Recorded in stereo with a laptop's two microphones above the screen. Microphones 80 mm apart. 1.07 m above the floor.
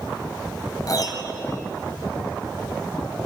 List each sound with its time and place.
0.9 s a piano: 50° left (ahead or behind), 2 m